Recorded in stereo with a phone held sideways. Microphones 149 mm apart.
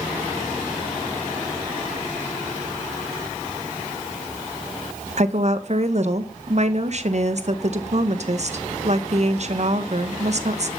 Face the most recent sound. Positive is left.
turn(degrees=-50)  # may be behind; listen again after turning